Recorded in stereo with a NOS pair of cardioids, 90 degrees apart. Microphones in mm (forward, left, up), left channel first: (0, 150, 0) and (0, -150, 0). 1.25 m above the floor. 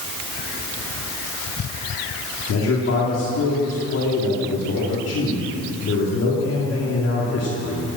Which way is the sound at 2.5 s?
50° left.